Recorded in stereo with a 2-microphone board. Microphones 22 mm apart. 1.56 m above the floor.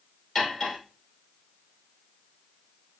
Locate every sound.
0.3 s cutlery clinking: 25° left (ahead or behind), 3 m